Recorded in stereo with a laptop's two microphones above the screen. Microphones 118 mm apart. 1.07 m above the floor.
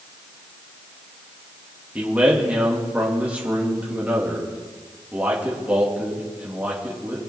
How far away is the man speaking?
About 1.5 m.